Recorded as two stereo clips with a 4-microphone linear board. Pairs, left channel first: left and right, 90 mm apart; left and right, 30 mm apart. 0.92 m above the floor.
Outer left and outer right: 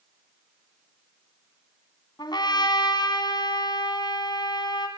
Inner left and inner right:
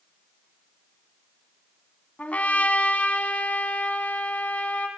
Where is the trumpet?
55° left (ahead or behind), 2.5 m.